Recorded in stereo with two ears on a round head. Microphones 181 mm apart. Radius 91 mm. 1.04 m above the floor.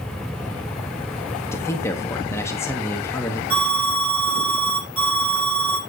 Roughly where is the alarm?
Right.